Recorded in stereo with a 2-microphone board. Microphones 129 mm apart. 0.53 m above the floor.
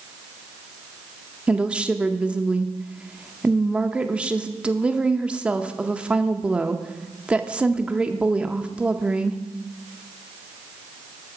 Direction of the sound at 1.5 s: 10° right (ahead or behind).